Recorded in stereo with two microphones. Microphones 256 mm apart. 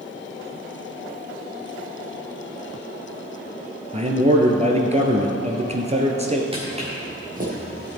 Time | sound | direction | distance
3.9 | a man speaking | 25° right (ahead or behind) | 1.7 m
6.5 | footsteps | 20° right (ahead or behind) | 4.5 m